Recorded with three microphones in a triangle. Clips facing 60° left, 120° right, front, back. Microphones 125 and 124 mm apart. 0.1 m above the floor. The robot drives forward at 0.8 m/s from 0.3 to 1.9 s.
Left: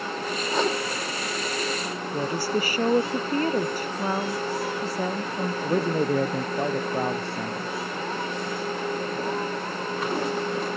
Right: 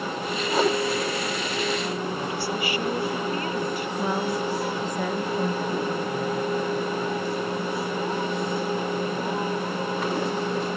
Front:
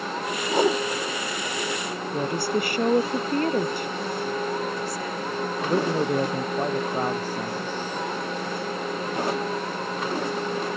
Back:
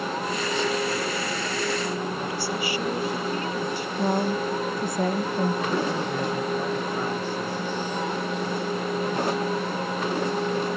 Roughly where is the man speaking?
Ahead left.